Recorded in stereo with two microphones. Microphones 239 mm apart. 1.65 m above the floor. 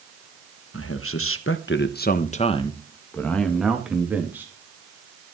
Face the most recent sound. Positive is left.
turn(degrees=-10)  # may be behind; listen again after turning